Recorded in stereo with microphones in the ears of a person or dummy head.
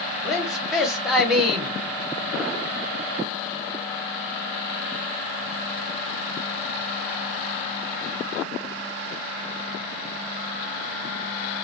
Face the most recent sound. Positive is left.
turn(degrees=-10)  # may be behind; listen again after turning